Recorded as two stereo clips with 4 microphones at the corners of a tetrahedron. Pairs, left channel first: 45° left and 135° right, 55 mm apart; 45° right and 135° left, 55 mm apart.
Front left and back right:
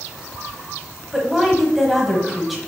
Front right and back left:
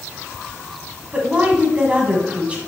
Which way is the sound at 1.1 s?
140° left.